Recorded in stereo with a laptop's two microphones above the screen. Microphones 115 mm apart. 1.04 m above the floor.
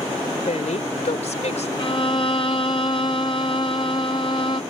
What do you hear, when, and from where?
0.5 s a woman speaking: 70° left (ahead or behind)
1.8 s a violin: 40° left (ahead or behind)